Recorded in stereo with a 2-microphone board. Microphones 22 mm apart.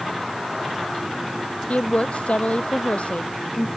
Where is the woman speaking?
75° left (ahead or behind).